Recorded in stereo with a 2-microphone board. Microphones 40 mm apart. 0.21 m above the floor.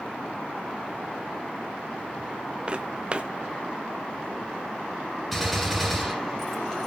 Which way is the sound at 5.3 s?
Centre (ahead or behind).